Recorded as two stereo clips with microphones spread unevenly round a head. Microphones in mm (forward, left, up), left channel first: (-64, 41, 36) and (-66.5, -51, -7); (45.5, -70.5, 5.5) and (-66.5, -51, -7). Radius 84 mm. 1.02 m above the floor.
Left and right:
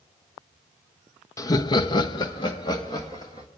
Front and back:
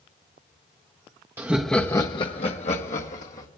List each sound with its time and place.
1.4 s laughter: 160° left, 0.8 m; by 3.5 s 15° left, 2.0 m